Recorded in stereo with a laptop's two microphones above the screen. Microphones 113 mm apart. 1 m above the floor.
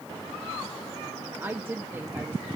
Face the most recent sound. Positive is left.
turn(degrees=-20)  # may be behind; listen again after turning